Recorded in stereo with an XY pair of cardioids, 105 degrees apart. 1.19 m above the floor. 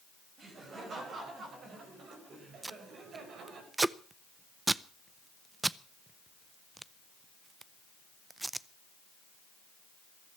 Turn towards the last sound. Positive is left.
turn(degrees=-15)